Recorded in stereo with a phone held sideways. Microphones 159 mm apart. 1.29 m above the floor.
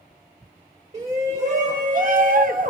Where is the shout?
40° right (ahead or behind), 1.2 m; by 2.7 s 55° right (ahead or behind), 0.9 m.